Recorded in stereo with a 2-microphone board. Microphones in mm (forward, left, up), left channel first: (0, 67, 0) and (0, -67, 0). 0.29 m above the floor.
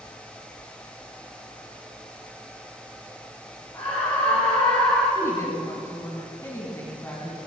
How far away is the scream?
About 6 m.